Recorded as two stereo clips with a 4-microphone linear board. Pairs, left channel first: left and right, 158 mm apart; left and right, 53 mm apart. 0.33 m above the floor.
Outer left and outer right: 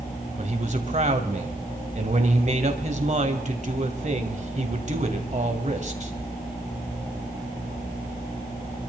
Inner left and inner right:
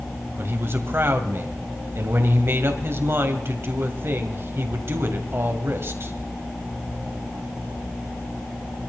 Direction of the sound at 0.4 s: 50° right (ahead or behind).